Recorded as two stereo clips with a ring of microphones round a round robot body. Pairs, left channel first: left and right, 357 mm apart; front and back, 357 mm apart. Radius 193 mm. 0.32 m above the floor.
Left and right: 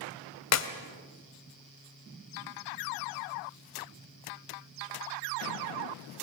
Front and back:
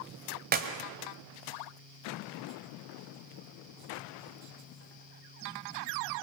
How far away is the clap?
About 1.5 m.